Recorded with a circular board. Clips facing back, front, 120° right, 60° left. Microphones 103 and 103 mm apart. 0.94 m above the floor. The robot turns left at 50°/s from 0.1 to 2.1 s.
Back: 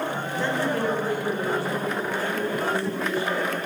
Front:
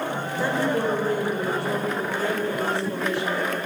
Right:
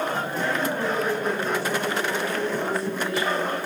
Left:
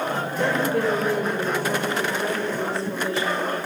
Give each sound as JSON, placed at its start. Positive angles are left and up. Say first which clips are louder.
{"t": 0.4, "sound": "a woman speaking", "louder": "front 2 dB, left 6 dB", "azimuth_deg": 85, "distance_m": 5.0}